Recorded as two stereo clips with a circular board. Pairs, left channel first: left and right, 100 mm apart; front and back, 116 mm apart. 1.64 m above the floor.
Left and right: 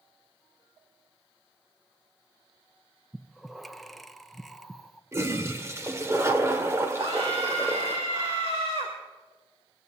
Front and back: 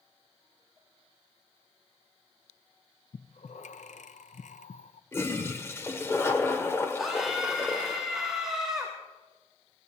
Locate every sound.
3.1 s breathing: straight ahead, 0.6 m
5.1 s a toilet flushing: 50° right, 1.5 m
7.0 s a scream: 95° right, 2.0 m